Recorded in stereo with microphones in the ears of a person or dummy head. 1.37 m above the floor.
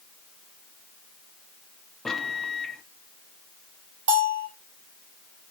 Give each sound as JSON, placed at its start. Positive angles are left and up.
{"t": 2.0, "sound": "a microwave", "side_deg": 5, "distance_m": 0.9}
{"t": 4.1, "sound": "a bell", "side_deg": -80, "distance_m": 3.0}